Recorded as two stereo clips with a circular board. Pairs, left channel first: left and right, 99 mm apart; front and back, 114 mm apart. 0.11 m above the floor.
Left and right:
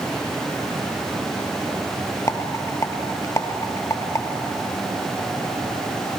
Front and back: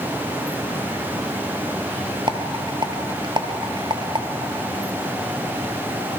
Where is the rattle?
140° left, 0.9 m.